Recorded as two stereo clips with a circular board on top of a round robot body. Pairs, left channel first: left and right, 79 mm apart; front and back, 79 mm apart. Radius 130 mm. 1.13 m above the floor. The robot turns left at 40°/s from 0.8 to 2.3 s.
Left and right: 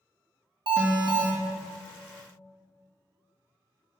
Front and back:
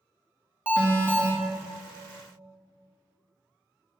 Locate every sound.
0.7 s an alarm: 105° right, 2.5 m; by 1.3 s 130° right, 2.5 m